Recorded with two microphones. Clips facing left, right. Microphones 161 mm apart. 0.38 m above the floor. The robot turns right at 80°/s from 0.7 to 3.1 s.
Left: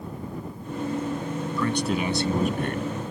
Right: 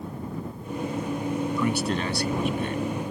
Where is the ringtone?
I don't hear a ringtone.